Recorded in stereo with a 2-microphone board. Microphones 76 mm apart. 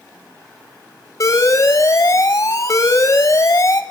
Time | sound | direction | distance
1.2 | an alarm | 50° left (ahead or behind) | 1.0 m